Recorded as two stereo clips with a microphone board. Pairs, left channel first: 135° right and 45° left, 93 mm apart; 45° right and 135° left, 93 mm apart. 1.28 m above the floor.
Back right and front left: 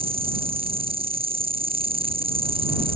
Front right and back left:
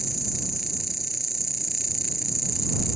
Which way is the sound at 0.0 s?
45° left.